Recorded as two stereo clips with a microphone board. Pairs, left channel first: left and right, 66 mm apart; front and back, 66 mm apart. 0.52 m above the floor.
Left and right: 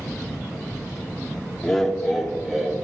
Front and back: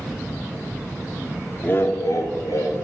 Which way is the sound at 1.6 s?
15° left.